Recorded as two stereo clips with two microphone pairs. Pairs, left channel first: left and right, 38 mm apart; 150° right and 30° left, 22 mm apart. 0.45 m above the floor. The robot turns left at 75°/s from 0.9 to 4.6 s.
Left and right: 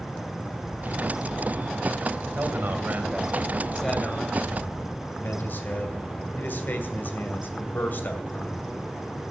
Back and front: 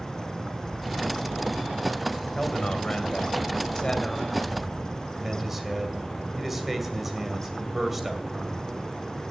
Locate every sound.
2.4 s a man speaking: 80° right, 2.5 m; by 8.6 s 110° left, 2.5 m